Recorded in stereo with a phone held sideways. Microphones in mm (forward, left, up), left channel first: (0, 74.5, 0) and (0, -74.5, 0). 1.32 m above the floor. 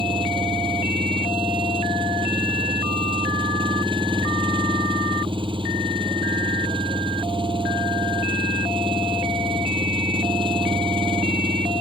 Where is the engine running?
35° right (ahead or behind).